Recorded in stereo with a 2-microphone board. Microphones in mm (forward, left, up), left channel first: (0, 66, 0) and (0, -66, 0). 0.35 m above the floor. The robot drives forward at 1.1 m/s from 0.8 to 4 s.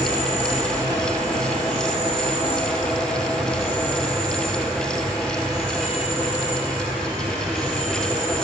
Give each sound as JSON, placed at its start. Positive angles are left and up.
{"t": 0.0, "sound": "an insect", "side_deg": -60, "distance_m": 1.8}